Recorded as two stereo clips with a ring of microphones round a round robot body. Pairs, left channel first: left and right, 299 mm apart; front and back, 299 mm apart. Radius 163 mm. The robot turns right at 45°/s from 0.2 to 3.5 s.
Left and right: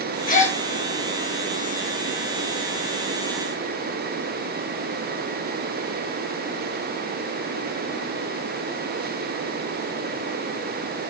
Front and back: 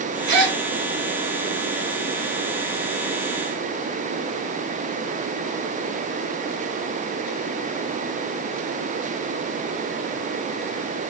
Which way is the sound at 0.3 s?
150° left.